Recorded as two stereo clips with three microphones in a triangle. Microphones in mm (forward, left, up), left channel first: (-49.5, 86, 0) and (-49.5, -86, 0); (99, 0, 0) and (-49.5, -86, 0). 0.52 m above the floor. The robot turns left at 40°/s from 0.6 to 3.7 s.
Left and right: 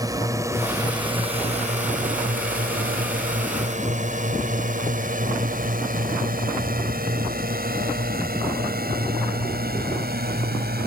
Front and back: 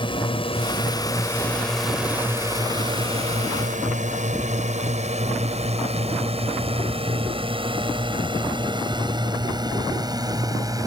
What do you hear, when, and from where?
0.0 s a drone: 25° right; by 10.9 s 85° right